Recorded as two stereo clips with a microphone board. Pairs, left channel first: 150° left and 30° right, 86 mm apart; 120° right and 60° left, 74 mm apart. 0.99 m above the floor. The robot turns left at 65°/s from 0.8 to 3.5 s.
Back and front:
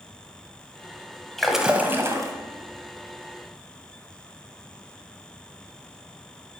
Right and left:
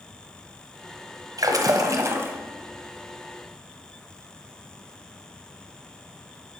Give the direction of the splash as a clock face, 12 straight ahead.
10 o'clock.